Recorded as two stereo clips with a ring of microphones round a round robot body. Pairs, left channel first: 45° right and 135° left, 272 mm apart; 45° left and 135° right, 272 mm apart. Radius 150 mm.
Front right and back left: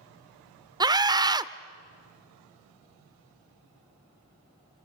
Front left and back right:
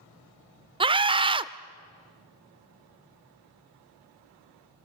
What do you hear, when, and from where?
0.8 s a scream: 175° right, 0.8 m